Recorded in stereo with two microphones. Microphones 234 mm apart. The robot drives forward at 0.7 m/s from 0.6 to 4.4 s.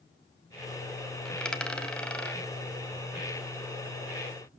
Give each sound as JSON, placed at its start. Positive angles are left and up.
{"t": 1.2, "sound": "a dropped coin", "side_deg": 5, "distance_m": 1.4}